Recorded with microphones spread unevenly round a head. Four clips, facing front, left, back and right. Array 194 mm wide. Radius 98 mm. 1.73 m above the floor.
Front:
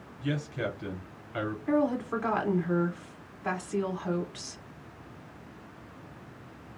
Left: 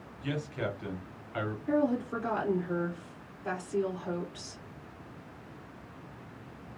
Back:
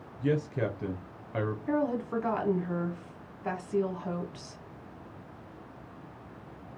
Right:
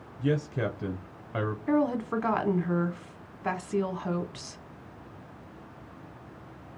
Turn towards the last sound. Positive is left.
turn(degrees=-60)